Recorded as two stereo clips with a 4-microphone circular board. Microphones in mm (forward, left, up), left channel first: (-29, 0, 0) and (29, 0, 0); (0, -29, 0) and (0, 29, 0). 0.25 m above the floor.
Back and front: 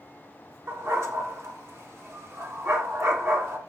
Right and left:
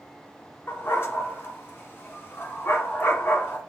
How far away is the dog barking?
About 1.0 m.